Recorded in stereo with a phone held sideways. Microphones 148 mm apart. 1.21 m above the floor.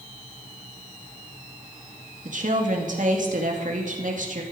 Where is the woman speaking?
60° right (ahead or behind), 2.5 m.